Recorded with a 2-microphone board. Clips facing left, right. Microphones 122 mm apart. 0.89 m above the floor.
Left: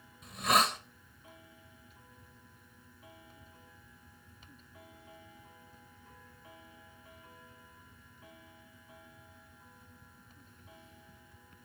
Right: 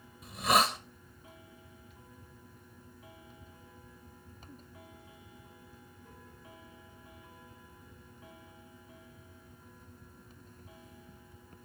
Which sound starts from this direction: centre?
A hiss, at 0.2 s.